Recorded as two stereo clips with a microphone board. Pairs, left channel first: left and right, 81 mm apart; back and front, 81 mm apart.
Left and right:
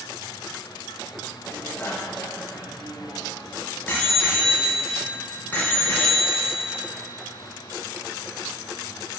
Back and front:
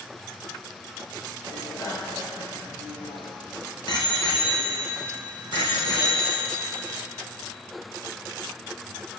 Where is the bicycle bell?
145° left, 2 m; by 6.9 s 160° left, 6 m.